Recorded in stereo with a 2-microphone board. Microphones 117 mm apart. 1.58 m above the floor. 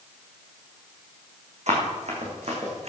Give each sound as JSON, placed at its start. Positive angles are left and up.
{"t": 1.7, "sound": "running footsteps", "side_deg": -70, "distance_m": 5.0}